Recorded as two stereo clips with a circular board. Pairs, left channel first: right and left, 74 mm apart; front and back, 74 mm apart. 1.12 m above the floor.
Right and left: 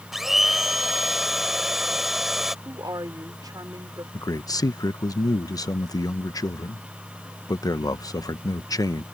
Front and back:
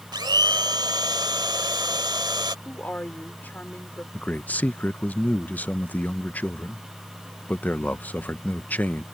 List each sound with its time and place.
0.1 s a blender: 175° left
2.6 s a woman speaking: 65° left
4.1 s a man speaking: 65° right